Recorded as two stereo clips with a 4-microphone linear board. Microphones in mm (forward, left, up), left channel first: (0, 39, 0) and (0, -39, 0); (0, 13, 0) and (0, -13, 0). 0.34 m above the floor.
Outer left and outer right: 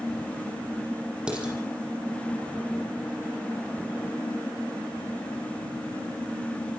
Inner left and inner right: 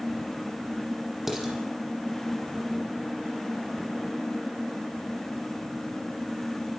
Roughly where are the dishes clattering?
Centre.